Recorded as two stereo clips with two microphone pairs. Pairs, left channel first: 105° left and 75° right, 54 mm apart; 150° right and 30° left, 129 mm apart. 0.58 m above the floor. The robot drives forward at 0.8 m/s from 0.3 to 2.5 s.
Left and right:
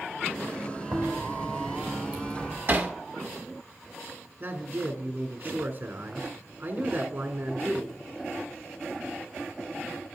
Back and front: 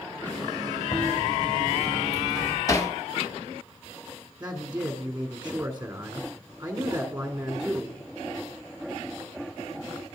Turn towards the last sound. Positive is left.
turn(degrees=-50)